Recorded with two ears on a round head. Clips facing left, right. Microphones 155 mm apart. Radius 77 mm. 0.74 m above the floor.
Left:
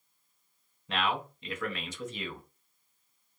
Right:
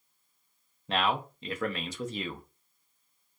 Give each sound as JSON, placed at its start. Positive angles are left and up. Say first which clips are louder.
{"t": 0.9, "sound": "a man speaking", "louder": "right 3 dB", "side_deg": -30, "distance_m": 0.5}